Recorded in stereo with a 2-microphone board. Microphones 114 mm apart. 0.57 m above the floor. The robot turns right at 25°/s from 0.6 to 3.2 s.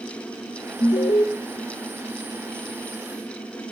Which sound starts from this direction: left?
An alarm, at 0.8 s.